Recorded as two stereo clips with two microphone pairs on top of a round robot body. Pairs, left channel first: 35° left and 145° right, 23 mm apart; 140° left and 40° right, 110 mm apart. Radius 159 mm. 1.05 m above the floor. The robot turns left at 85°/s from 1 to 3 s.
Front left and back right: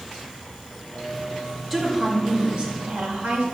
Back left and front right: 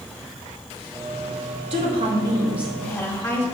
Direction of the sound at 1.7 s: 45° right.